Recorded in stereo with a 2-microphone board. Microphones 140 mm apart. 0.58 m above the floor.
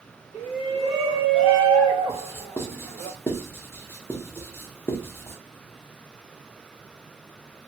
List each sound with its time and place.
0.3 s a shout: 45° right (ahead or behind), 1.7 m; by 3.1 s 15° right (ahead or behind), 2 m
2.1 s writing: 15° left (ahead or behind), 0.8 m